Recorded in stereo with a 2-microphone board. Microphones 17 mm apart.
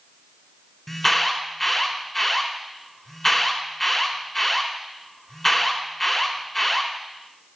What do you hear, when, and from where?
0.9 s an alarm: 15° left (ahead or behind), 2.0 m